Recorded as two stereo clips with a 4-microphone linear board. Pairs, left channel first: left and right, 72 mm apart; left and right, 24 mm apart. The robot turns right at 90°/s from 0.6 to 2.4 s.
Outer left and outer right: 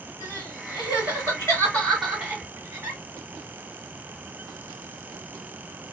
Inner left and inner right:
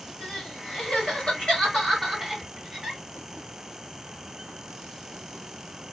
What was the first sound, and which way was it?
Crying, 45° left (ahead or behind).